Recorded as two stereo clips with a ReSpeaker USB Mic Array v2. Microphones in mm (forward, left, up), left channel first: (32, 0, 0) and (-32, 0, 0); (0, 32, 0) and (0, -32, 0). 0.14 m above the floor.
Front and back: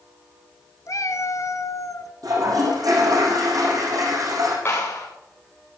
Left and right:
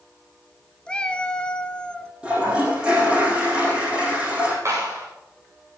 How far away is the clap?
About 8 m.